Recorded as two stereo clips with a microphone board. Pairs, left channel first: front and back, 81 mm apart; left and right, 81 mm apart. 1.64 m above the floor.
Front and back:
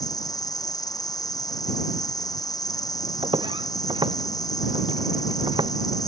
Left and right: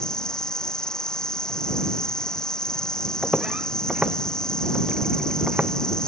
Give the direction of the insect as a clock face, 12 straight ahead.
12 o'clock.